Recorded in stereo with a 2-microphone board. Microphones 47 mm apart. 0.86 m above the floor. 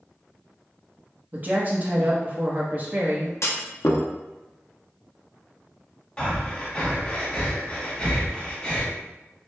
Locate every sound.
1.3 s a woman speaking: 40° right (ahead or behind), 0.8 m
3.4 s a clunk: 70° left (ahead or behind), 0.6 m
6.2 s breathing: 20° left (ahead or behind), 0.8 m